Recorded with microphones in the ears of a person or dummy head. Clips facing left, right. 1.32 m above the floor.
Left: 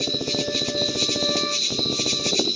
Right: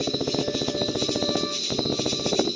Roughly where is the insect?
Left.